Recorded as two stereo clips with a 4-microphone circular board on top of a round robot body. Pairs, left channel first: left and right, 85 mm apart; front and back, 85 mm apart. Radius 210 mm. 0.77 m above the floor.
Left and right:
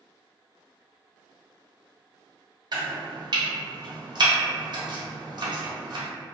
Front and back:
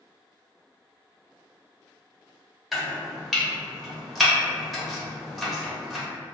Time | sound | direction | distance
2.7 | chopping | 90° right | 1.0 m